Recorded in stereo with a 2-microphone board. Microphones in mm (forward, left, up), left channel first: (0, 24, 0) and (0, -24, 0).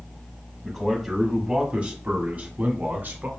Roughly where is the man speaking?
Centre.